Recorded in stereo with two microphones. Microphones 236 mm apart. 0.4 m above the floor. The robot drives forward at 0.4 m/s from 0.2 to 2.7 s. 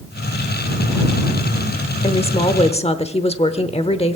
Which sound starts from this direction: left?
A woman speaking, at 2.0 s.